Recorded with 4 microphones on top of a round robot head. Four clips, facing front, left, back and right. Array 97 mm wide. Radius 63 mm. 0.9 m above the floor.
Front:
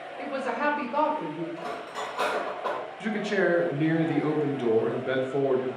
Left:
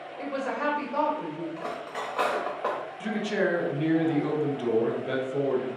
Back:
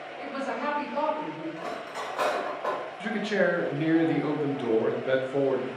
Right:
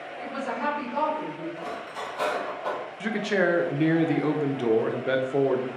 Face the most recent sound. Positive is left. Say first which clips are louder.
# right 3 dB, even
turn(degrees=-85)